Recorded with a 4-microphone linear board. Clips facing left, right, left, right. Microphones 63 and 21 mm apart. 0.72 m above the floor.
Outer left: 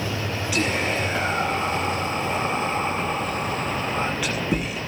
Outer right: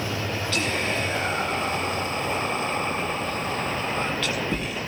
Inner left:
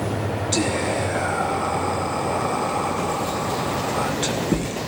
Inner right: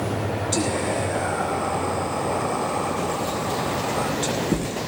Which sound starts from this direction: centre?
Whispering, at 0.5 s.